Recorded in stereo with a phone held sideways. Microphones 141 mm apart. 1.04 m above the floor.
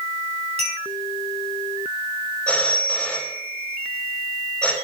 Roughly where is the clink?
Right.